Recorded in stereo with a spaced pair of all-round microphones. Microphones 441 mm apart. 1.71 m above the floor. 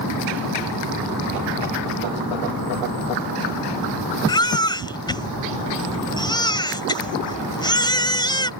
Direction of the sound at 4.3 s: 10° left (ahead or behind).